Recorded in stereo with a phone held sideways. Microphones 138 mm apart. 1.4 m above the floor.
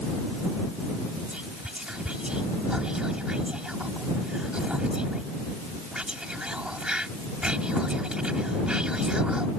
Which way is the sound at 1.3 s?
5° right (ahead or behind).